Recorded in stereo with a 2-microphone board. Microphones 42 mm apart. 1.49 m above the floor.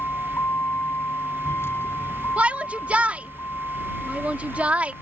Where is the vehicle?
65° left (ahead or behind); by 5.0 s 90° left.